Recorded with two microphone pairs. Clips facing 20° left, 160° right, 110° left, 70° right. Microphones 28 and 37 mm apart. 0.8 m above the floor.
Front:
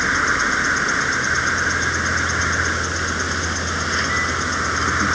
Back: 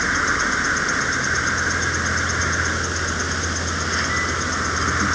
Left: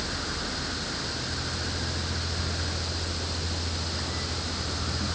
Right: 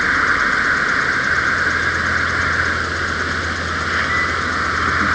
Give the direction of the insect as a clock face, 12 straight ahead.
2 o'clock.